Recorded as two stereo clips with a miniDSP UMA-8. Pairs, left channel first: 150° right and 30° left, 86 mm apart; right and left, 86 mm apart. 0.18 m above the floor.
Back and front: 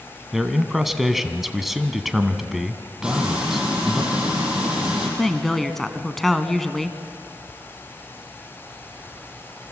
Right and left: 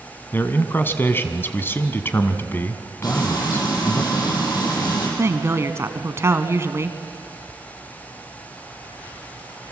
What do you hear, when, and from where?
0.3 s a man speaking: 55° right, 1.4 m
3.0 s frying: 50° right, 6.5 m
5.2 s a woman speaking: 125° left, 1.4 m